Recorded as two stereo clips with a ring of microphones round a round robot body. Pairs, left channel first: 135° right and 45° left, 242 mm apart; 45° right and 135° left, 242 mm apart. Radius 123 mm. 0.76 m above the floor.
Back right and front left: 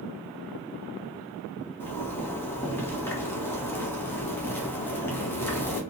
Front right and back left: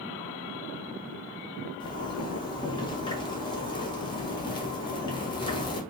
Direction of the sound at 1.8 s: 70° right.